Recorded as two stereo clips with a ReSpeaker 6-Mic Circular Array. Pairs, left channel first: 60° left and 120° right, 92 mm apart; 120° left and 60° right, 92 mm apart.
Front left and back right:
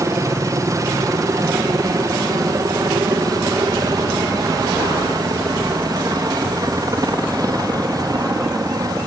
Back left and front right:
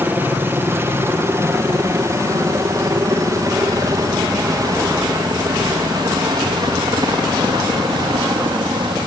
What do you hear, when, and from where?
0.0 s a helicopter: 110° right; by 9.1 s 80° right